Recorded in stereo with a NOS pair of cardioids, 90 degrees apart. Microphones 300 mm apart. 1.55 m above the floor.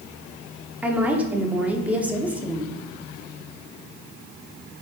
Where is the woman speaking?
5° right, 0.8 m.